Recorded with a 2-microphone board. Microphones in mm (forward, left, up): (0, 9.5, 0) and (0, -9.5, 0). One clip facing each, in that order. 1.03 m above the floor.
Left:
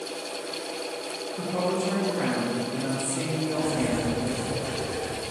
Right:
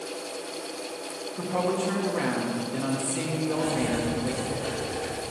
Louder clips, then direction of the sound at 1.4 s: Even; 40° right (ahead or behind).